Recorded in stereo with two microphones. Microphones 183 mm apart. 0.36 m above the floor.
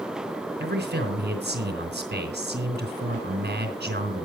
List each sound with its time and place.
0.6 s a man speaking: 70° right (ahead or behind), 3.5 m